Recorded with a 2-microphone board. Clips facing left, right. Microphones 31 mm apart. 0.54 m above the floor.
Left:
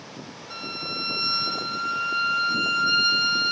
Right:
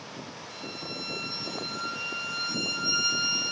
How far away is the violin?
About 1.1 m.